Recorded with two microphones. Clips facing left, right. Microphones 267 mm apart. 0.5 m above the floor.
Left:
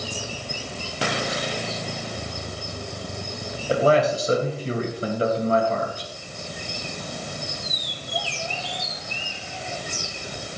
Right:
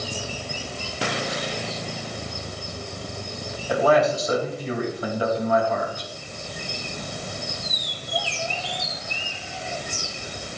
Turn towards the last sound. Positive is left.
turn(degrees=30)  # may be behind; listen again after turning